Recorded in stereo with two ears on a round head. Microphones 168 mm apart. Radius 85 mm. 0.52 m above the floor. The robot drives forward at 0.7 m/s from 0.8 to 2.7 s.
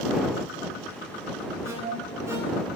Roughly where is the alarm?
Centre.